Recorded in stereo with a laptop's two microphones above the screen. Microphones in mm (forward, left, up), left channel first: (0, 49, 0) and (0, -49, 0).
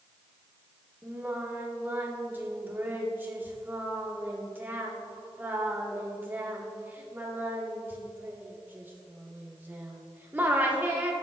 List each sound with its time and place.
1.0 s singing: 20° right (ahead or behind), 1.7 m